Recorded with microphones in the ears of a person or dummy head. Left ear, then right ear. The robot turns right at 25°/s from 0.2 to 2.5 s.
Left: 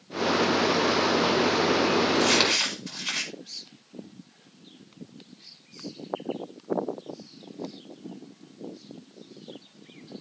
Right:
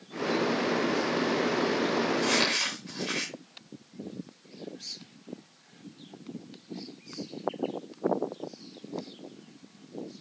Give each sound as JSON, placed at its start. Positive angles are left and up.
{"t": 2.1, "sound": "crumpling", "side_deg": 25, "distance_m": 4.0}